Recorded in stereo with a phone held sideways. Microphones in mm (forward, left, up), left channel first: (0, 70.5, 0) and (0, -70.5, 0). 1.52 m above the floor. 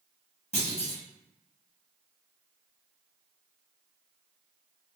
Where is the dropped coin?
I don't hear a dropped coin.